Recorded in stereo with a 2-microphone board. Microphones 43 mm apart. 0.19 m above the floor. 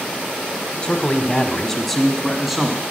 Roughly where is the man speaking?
Left.